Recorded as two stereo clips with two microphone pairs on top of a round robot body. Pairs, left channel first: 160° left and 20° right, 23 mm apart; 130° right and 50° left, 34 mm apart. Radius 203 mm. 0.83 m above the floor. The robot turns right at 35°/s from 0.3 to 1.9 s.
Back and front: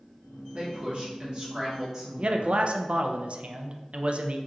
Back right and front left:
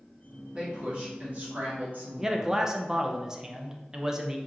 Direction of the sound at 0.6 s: 10° right.